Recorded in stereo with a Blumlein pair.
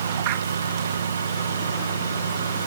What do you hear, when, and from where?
0.0 s a fan: 70° right